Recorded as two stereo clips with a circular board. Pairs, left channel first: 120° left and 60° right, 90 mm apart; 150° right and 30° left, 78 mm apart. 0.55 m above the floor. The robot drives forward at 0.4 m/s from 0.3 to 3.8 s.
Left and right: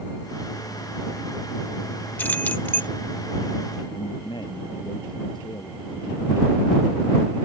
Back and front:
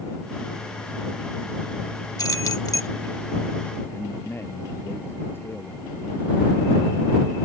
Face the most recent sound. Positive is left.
turn(degrees=150)